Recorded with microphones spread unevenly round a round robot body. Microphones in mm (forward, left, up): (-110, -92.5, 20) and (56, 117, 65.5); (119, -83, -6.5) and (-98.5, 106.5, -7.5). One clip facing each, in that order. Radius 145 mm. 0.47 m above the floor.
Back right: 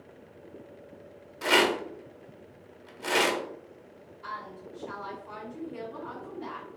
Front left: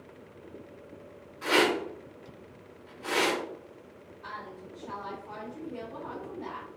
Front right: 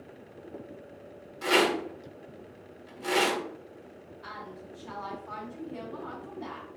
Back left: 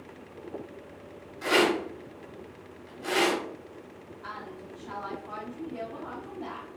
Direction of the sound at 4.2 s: 70° right.